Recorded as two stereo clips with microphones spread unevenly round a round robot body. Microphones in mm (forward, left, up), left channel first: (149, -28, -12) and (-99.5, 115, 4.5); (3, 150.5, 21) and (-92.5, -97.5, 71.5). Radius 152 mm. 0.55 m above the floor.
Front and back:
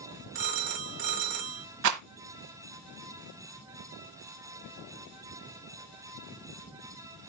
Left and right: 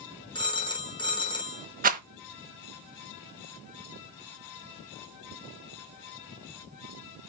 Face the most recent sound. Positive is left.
turn(degrees=-170)